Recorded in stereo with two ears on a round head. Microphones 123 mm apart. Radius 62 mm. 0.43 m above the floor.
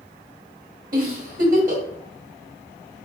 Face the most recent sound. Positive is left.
turn(degrees=-65)  # may be behind; listen again after turning